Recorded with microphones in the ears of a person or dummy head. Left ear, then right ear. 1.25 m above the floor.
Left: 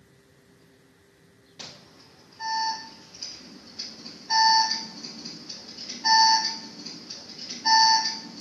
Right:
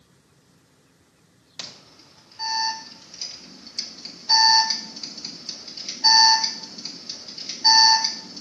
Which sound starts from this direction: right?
An alarm, at 1.6 s.